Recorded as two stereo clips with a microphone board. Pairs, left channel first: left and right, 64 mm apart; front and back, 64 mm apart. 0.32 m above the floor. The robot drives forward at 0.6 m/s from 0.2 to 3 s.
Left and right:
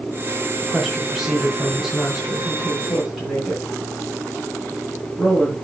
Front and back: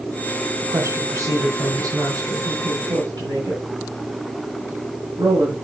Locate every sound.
0.6 s a woman speaking: 175° right, 1.5 m; by 5.5 s straight behind, 2.5 m